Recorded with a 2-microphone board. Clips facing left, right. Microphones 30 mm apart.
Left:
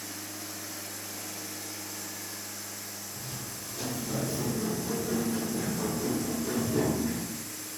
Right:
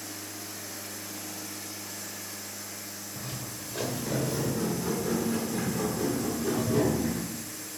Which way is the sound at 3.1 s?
70° right (ahead or behind).